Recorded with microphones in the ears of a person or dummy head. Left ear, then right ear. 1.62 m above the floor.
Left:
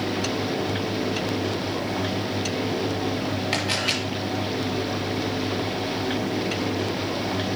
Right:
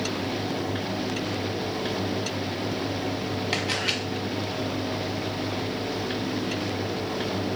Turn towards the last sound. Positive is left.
turn(degrees=0)  # may be behind; listen again after turning